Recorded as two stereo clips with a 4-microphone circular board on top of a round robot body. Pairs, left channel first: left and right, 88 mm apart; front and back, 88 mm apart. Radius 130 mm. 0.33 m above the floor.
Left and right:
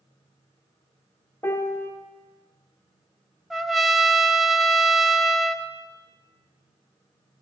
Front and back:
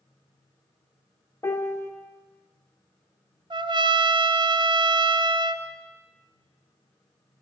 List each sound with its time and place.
1.4 s a piano: 40° left, 1.3 m
3.5 s a trumpet: straight behind, 0.7 m